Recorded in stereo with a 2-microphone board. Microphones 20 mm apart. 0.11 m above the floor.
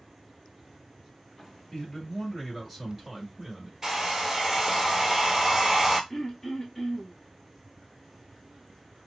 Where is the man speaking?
25° left (ahead or behind), 1.6 m; by 3.7 s 20° right (ahead or behind), 1.5 m.